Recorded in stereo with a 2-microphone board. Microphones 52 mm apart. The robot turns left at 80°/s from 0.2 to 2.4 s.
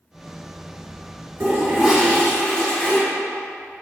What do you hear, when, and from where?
1.4 s a toilet flushing: 135° right, 1.5 m; by 3.0 s 145° left, 1.5 m